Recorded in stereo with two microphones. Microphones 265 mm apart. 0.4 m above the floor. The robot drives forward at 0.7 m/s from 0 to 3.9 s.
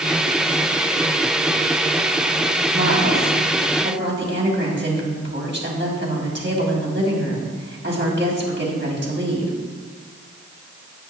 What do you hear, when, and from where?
2.7 s a woman speaking: 55° right (ahead or behind), 2.5 m; by 9.5 s 45° right (ahead or behind), 2.5 m